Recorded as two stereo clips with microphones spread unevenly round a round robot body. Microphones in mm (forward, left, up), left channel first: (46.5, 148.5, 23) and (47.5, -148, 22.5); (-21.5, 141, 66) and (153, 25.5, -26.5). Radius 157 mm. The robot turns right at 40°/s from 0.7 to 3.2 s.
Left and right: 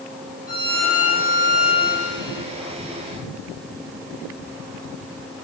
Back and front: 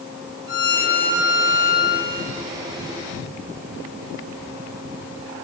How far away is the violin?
About 2.5 m.